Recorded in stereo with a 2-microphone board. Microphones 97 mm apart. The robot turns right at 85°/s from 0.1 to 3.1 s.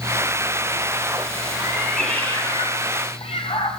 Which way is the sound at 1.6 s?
30° right.